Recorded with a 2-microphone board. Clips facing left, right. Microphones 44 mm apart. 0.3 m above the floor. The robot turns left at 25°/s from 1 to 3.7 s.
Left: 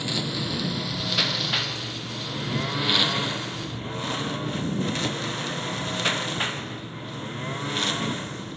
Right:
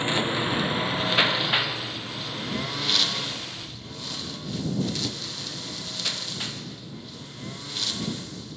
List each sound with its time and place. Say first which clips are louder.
0.0 s a lawn mower: right 4 dB; 35° right (ahead or behind); by 8.6 s 40° left (ahead or behind)